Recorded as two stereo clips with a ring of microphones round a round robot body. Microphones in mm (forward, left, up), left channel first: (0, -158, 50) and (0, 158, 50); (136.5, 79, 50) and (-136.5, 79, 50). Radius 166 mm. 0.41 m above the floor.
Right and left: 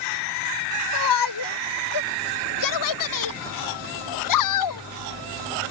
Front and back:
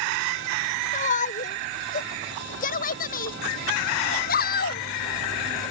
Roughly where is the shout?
Right.